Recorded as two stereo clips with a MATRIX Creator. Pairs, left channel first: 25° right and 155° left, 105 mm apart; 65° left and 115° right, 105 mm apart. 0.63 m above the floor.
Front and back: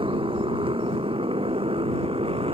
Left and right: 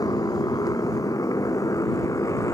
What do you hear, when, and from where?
0.0 s a motorcycle: 125° left; by 2.5 s 130° left